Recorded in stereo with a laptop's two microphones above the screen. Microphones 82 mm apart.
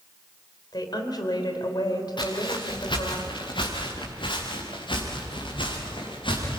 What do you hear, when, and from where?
0.7 s a woman speaking: 60° left (ahead or behind), 3.5 m
2.2 s footsteps: 70° left (ahead or behind), 4.5 m; by 6.6 s 80° left, 7.5 m